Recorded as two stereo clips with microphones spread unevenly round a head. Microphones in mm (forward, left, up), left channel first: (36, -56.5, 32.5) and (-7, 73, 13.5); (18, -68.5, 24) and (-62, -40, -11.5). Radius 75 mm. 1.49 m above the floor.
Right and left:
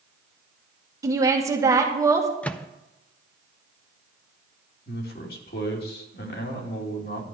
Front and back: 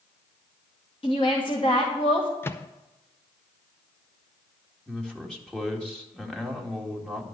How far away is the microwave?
About 0.5 m.